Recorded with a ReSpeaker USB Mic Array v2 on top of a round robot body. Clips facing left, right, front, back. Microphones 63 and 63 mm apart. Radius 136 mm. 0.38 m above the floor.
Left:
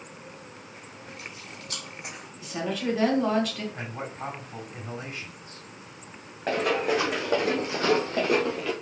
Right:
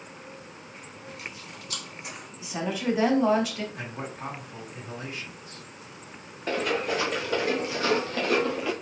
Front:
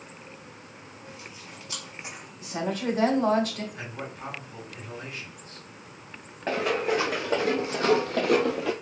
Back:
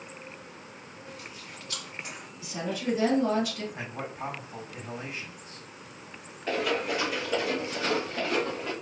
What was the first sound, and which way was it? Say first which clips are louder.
Chewing: right 2 dB, even; 75° left.